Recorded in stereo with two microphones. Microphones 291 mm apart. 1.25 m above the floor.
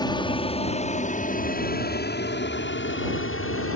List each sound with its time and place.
0.0 s an aircraft: 15° left (ahead or behind); by 3.8 s 45° left (ahead or behind)